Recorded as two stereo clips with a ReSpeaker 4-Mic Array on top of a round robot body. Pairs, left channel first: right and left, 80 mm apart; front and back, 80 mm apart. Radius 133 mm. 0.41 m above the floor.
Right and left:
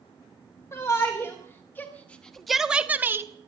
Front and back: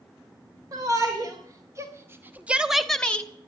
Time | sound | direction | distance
0.7 | a shout | 140° right | 3 m